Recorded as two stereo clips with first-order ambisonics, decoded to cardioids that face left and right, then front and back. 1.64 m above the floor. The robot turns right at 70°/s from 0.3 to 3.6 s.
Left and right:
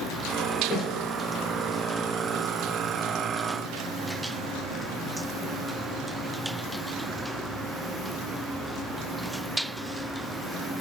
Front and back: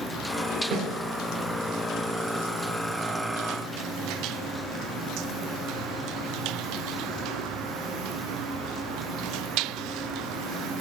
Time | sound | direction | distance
0.7 | a snare drum | 140° left | 0.7 m